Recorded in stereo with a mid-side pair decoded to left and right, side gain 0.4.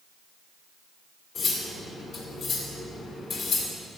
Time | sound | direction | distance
1.4 | cutlery clinking | 70° left | 1.8 m